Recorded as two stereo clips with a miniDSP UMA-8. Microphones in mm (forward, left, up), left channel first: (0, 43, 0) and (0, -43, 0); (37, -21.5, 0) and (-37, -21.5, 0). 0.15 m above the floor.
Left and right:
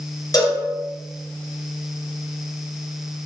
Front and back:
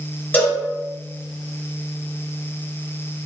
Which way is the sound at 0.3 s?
60° left.